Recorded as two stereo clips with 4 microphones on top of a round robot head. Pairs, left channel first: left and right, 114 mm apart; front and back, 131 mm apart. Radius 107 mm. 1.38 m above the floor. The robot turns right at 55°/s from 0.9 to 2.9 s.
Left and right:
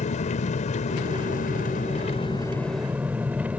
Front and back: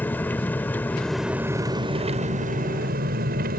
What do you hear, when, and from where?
0.0 s an engine running: 75° left; by 3.6 s 175° right